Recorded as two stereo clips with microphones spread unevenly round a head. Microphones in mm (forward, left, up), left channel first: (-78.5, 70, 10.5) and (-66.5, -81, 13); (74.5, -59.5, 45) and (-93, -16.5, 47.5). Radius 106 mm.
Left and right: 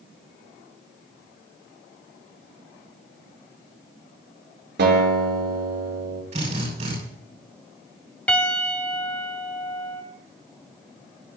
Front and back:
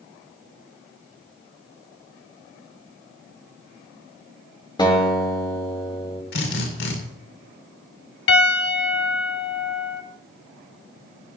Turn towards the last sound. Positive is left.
turn(degrees=10)